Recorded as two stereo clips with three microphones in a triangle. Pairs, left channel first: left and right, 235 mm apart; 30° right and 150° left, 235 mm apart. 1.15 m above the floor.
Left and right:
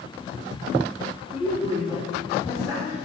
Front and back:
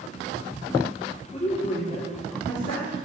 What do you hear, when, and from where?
1.3 s a woman speaking: 30° left, 3.5 m; by 3.0 s 10° left, 3 m